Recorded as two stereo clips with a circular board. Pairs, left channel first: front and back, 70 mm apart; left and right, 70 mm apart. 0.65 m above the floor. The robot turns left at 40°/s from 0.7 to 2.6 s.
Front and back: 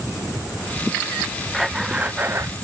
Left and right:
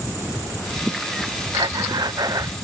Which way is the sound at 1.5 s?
90° right.